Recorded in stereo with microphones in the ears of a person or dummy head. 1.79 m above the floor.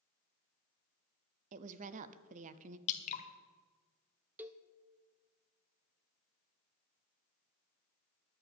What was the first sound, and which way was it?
A woman speaking, 40° right (ahead or behind).